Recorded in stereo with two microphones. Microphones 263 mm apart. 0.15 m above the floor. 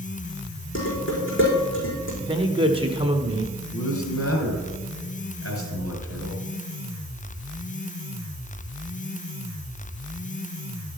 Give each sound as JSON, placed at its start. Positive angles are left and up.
{"t": 0.8, "sound": "dishes clattering", "side_deg": 50, "distance_m": 5.0}
{"t": 2.2, "sound": "a man speaking", "side_deg": -20, "distance_m": 1.1}
{"t": 3.7, "sound": "a man speaking", "side_deg": 60, "distance_m": 3.0}